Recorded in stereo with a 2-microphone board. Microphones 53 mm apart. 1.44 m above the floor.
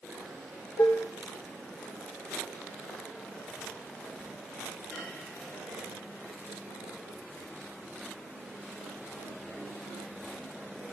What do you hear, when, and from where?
0.8 s dishes clattering: 60° left (ahead or behind), 1.2 m